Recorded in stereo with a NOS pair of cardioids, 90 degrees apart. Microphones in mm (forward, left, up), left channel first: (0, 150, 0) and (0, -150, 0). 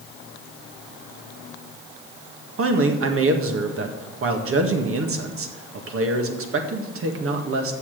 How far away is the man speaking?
About 1.7 m.